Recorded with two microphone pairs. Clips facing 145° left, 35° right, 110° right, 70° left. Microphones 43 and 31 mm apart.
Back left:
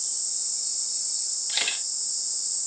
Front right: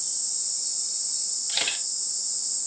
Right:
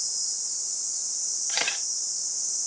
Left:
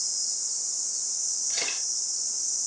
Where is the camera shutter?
125° right, 0.7 m.